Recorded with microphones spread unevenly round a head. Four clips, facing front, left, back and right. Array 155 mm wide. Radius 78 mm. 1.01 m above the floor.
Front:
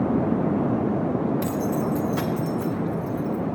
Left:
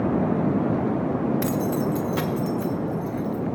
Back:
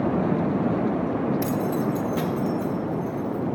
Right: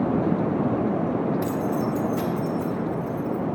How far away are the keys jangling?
About 0.5 m.